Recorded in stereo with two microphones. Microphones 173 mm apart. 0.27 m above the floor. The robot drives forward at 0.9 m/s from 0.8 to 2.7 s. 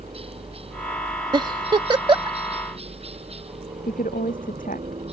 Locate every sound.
0.0 s a helicopter: 35° right (ahead or behind)
1.3 s a giggle: 25° right (ahead or behind)
3.9 s a woman speaking: 55° left (ahead or behind)